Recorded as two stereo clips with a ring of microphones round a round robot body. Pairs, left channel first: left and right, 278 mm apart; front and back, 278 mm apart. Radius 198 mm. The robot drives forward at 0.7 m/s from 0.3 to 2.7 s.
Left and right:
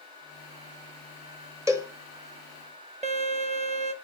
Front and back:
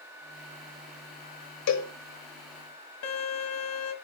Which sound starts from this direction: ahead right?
A violin, at 3.0 s.